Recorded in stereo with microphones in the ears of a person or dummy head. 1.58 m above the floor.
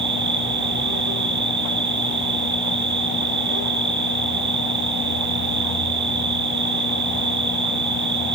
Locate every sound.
0.0 s an insect: 65° right (ahead or behind), 1.1 m